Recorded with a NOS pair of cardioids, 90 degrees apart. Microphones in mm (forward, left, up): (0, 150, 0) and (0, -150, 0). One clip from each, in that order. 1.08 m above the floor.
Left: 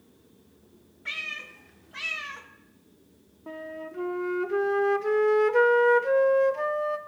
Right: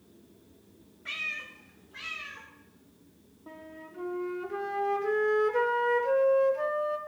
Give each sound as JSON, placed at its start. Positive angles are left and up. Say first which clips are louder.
{"t": 1.1, "sound": "a cat meowing", "louder": "left 1 dB", "azimuth_deg": 20, "distance_m": 1.5}
{"t": 3.5, "sound": "a flute", "louder": "left 9 dB", "azimuth_deg": 25, "distance_m": 0.8}